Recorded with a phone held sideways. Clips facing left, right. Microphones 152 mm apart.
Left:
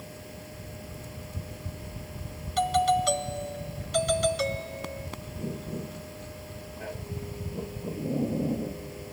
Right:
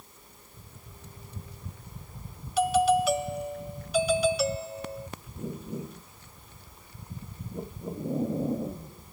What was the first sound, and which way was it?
A machine running, 85° left.